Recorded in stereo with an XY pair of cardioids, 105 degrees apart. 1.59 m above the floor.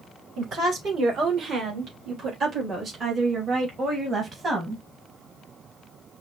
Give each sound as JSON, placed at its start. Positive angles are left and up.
{"t": 0.4, "sound": "a woman speaking", "azimuth_deg": -70, "distance_m": 4.0}